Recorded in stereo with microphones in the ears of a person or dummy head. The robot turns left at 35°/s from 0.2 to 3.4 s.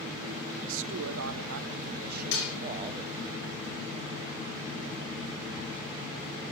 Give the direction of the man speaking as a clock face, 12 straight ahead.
3 o'clock.